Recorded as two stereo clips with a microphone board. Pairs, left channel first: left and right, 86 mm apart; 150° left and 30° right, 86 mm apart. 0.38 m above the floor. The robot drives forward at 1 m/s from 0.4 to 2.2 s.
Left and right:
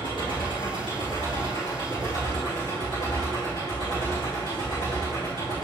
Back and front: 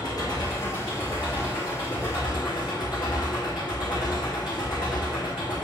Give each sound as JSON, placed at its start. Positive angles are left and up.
{"t": 0.0, "sound": "an engine running", "azimuth_deg": 110, "distance_m": 4.5}